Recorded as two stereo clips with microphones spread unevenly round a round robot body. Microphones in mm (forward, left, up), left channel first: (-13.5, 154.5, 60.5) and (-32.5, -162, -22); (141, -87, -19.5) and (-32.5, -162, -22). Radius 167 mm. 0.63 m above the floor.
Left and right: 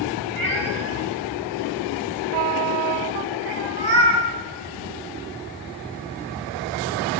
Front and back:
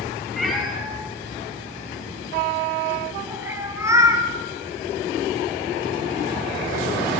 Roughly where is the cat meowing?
Ahead right.